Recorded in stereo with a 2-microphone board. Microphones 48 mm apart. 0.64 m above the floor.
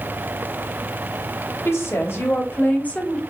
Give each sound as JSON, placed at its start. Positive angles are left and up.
{"t": 1.6, "sound": "a woman speaking", "side_deg": 65, "distance_m": 3.0}